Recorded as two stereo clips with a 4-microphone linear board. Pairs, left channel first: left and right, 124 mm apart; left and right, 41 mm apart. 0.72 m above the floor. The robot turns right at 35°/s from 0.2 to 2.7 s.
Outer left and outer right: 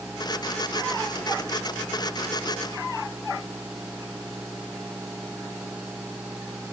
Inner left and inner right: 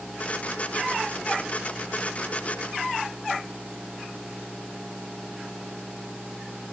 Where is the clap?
I don't hear a clap.